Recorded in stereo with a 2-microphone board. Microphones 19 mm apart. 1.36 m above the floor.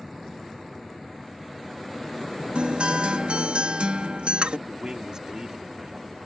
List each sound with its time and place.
2.5 s a guitar: 80° right
4.7 s a man speaking: 35° right (ahead or behind)